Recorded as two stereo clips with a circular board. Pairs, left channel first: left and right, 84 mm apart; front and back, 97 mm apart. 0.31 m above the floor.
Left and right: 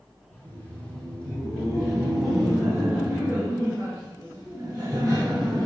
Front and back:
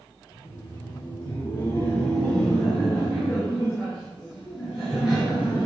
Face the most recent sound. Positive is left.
turn(degrees=-120)